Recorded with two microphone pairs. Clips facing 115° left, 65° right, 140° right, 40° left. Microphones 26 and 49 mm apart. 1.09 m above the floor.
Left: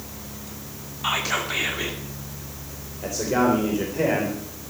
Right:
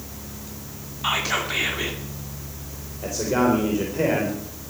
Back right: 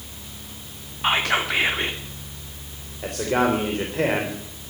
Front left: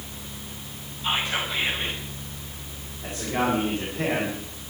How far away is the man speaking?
About 3.5 m.